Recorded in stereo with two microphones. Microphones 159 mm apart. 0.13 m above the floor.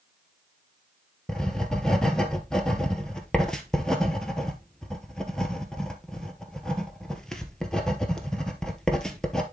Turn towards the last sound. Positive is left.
turn(degrees=5)  # may be behind; listen again after turning